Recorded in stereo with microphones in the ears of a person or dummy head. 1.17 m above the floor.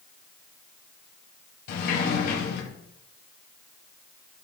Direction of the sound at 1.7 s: 60° left (ahead or behind).